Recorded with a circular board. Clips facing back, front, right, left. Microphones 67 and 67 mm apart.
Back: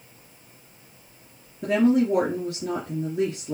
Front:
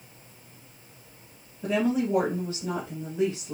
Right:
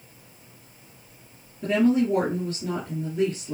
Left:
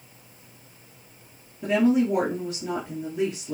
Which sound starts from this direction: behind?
A woman speaking, at 1.6 s.